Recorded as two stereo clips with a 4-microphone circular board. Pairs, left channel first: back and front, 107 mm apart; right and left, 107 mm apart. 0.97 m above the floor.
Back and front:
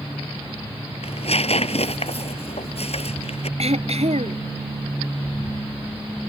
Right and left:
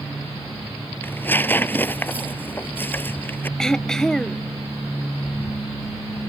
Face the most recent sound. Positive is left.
turn(degrees=-5)